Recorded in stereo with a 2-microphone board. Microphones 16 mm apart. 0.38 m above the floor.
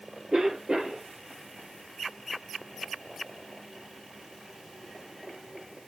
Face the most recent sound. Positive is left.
turn(degrees=-60)  # may be behind; listen again after turning